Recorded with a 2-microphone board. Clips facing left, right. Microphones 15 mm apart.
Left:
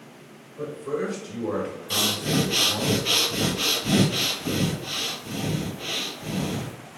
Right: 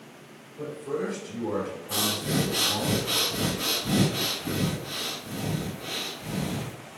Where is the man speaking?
50° left (ahead or behind), 1.9 m.